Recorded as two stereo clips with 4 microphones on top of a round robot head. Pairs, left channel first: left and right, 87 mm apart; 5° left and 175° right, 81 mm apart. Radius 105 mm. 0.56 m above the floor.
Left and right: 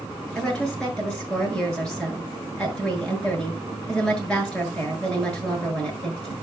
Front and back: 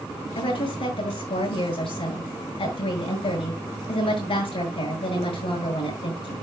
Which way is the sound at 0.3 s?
10° left.